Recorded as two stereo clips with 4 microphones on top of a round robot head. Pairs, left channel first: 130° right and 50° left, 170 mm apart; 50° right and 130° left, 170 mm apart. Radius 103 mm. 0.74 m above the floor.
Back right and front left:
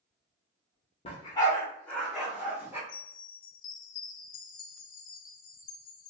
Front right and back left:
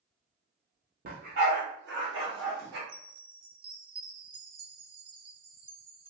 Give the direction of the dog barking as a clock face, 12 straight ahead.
6 o'clock.